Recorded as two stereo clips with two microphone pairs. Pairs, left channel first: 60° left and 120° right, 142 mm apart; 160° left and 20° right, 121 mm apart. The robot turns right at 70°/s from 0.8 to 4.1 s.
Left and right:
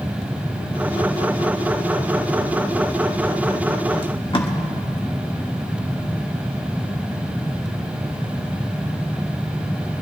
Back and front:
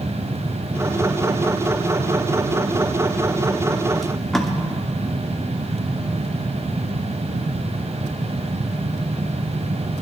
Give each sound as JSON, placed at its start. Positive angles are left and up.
{"t": 4.0, "sound": "tape being pulled", "azimuth_deg": 70, "distance_m": 1.3}